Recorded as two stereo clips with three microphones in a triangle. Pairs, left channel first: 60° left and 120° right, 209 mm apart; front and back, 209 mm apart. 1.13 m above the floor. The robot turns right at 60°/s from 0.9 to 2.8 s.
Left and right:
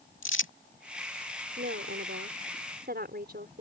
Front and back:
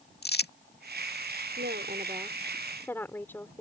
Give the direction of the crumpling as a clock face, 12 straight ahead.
11 o'clock.